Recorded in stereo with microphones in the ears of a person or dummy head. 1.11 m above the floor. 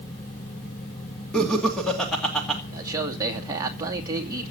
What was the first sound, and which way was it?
Laughter, 10° left (ahead or behind).